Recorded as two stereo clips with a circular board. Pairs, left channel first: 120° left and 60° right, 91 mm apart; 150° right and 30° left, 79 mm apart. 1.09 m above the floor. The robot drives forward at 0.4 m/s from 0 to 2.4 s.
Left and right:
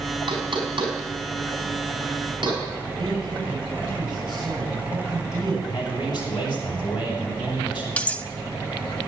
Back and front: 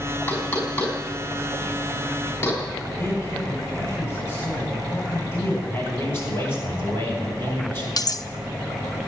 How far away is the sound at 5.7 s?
About 6 m.